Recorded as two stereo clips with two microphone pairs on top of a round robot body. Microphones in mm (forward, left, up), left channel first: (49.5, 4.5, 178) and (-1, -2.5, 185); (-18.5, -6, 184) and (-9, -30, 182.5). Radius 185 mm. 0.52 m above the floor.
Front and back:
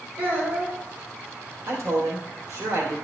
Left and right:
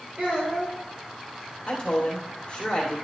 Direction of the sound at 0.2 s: 120° right.